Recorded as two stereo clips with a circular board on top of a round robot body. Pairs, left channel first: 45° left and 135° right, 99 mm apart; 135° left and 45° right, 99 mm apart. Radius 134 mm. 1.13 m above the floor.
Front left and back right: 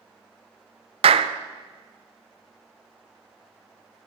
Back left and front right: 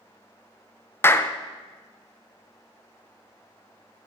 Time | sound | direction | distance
1.0 | a clap | 155° right | 0.7 m